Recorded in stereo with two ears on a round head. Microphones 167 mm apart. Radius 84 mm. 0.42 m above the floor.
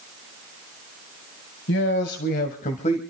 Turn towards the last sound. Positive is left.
turn(degrees=35)  # may be behind; listen again after turning